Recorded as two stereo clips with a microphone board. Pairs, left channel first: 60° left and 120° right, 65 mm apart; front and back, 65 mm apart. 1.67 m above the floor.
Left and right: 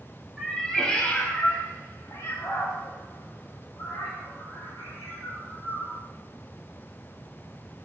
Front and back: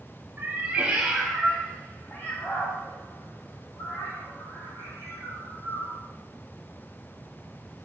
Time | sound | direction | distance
0.4 | a cat meowing | 150° left | 1.3 m